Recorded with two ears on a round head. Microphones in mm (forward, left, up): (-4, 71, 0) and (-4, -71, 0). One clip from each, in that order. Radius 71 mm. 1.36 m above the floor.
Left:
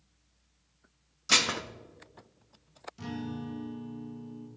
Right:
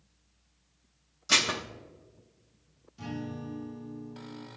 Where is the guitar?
25° left (ahead or behind), 1.1 m.